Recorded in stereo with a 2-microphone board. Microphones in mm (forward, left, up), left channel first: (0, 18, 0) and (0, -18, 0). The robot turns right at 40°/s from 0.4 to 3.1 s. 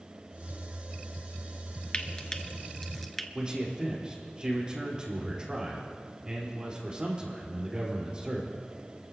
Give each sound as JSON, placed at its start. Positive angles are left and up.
{"t": 1.9, "sound": "frying", "side_deg": 25, "distance_m": 0.7}
{"t": 3.4, "sound": "a man speaking", "side_deg": -25, "distance_m": 4.5}